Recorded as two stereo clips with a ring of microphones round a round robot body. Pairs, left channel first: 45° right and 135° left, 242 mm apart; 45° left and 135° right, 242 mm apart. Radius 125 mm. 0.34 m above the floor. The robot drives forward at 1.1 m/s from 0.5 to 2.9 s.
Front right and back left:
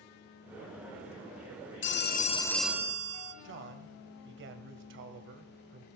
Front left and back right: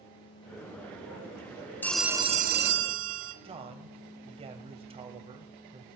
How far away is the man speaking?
About 1.8 m.